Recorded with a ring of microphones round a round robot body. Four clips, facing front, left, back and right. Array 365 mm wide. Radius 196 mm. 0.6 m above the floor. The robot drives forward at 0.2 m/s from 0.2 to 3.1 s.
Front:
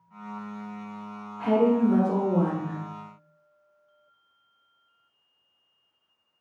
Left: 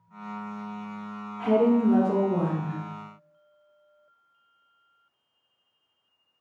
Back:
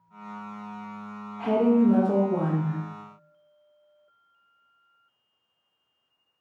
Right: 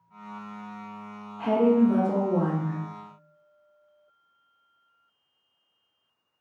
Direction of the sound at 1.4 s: 130° right.